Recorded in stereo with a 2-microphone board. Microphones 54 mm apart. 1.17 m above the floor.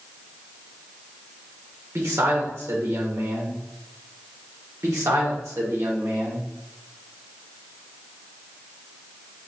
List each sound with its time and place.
1.9 s a man speaking: 70° right (ahead or behind), 1.2 m
4.8 s a man speaking: 70° right (ahead or behind), 1.3 m